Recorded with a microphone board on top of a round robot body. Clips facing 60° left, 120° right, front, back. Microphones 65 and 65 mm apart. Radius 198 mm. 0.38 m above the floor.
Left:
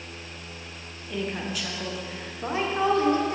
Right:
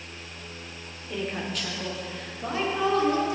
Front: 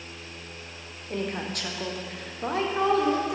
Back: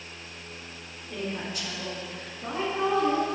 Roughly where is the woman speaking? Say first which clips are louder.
Left 1 dB, front 3 dB; ahead right.